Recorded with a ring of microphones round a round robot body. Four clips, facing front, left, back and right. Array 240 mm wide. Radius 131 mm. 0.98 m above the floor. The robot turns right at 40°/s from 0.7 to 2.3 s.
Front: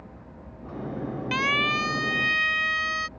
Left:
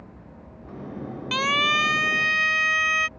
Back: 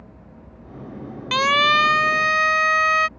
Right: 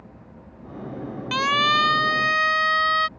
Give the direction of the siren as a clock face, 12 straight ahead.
6 o'clock.